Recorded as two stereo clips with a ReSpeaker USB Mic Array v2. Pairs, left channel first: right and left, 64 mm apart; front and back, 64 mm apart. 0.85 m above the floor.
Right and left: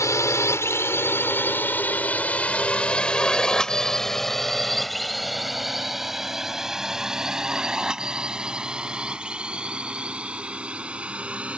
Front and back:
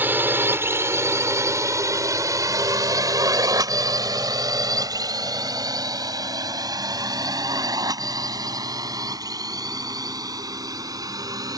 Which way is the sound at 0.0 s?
125° right.